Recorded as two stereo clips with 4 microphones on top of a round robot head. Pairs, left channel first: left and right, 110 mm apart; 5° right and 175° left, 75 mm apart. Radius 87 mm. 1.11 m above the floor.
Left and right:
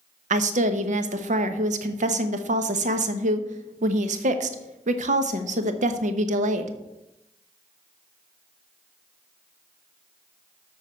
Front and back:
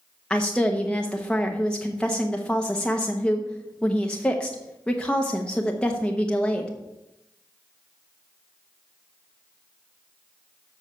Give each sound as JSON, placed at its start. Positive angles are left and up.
{"t": 0.3, "sound": "a woman speaking", "azimuth_deg": -85, "distance_m": 0.9}